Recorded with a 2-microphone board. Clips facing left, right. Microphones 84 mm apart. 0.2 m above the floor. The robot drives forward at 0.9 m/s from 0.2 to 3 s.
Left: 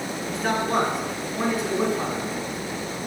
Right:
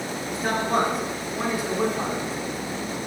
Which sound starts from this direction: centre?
A man speaking, at 0.3 s.